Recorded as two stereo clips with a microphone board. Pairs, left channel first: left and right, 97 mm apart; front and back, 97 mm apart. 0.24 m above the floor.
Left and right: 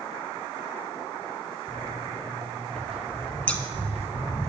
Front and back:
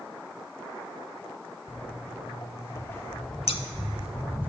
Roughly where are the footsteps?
Ahead.